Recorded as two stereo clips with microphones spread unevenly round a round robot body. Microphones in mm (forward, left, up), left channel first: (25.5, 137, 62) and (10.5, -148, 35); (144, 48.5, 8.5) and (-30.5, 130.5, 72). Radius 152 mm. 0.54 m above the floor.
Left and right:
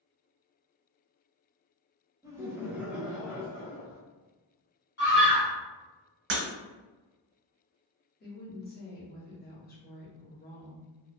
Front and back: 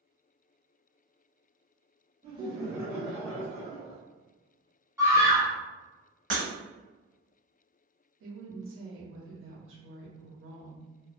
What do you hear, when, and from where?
2.2 s laughter: 140° right, 1.0 m; by 4.0 s straight ahead, 1.3 m
5.0 s a scream: 65° left, 1.6 m
6.3 s breaking glass: 150° right, 0.6 m
8.2 s a woman speaking: 140° left, 0.9 m